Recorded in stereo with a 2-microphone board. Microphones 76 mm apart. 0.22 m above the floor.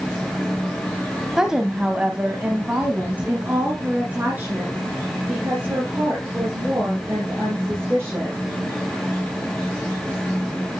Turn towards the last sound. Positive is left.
turn(degrees=-25)  # may be behind; listen again after turning